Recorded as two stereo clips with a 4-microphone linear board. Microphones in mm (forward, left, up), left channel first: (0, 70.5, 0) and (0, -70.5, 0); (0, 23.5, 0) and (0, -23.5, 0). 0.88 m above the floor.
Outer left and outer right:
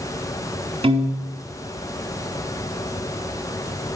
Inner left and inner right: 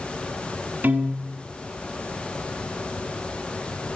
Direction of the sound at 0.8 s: 40° right (ahead or behind).